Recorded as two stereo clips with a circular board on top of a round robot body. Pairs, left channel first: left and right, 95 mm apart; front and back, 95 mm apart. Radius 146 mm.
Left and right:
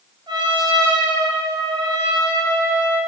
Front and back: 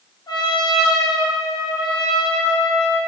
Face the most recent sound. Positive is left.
turn(degrees=-45)